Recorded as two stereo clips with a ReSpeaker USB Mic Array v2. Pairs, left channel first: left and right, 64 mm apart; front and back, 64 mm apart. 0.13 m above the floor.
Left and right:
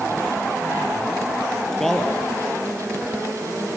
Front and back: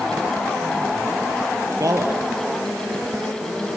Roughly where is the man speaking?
Behind.